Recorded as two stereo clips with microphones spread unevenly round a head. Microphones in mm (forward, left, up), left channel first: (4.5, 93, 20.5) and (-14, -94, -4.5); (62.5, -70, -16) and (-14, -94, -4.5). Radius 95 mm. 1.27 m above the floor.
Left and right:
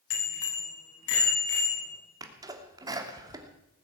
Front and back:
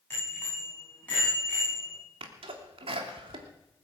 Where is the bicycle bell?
95° left, 7 m; by 2.0 s 105° left, 9 m.